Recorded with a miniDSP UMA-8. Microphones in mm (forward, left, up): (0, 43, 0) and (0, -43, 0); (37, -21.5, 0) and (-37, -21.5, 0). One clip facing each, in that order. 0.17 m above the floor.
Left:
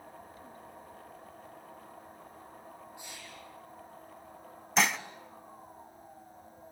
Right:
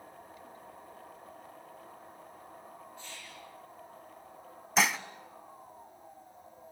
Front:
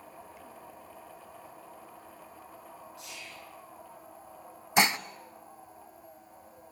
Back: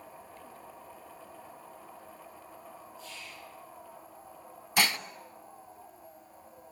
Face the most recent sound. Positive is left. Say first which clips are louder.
# even, front 3 dB
turn(degrees=-5)